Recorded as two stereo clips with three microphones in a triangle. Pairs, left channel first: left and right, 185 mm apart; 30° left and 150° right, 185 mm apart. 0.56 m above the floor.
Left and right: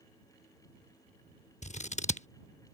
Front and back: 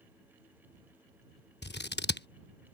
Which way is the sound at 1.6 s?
45° left.